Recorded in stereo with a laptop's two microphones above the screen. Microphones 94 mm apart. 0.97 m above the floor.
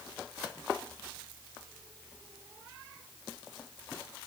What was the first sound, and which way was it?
Only background noise.